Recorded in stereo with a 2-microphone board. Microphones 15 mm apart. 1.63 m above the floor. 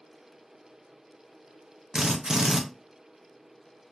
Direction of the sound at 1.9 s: 45° right (ahead or behind).